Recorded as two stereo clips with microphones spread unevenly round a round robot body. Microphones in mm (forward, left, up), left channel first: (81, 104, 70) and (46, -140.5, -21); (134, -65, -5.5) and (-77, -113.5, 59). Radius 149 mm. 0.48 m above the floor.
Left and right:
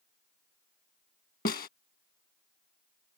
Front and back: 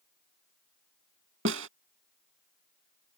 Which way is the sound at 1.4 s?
140° left.